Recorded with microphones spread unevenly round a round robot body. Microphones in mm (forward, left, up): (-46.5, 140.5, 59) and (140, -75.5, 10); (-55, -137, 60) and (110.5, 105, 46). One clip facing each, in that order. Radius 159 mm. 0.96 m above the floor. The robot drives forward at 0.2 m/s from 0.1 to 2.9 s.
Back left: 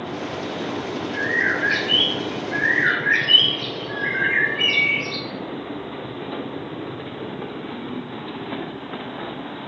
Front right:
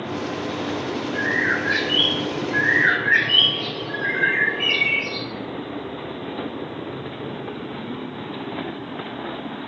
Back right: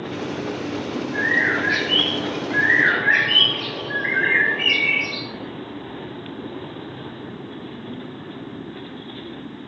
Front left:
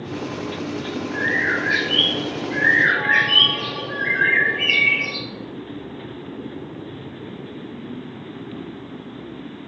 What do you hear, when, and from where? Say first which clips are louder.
1.1 s a bird: front right 1 dB, back right 1 dB; 170° left, 1.2 m